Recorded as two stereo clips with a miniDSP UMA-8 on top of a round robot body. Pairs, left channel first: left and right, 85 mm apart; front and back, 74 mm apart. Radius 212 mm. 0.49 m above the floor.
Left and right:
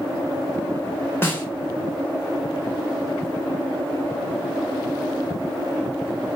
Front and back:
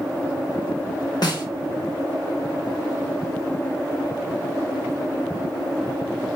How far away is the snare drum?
About 2.5 m.